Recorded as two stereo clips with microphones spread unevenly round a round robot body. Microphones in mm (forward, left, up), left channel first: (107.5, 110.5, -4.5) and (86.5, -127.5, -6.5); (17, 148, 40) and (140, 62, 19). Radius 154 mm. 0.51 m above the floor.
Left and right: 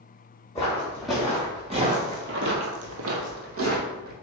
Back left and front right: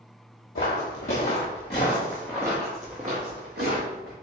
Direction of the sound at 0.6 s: 165° left.